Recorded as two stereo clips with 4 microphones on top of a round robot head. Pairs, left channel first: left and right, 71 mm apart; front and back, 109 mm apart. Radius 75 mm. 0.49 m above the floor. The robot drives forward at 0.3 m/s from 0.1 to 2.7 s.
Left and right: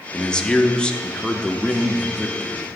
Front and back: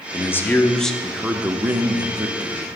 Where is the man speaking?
25° left, 0.7 m; by 2.7 s 165° left, 0.8 m.